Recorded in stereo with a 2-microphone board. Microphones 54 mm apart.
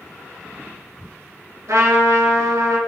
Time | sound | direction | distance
1.7 | a trumpet | 85° right | 1.4 m